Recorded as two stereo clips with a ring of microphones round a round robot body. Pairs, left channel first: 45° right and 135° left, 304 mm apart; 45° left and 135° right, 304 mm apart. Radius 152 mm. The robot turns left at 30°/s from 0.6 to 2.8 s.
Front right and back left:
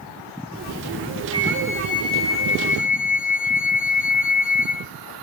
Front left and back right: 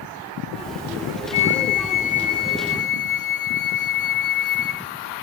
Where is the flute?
35° left, 3 m; by 4.9 s 10° right, 3 m.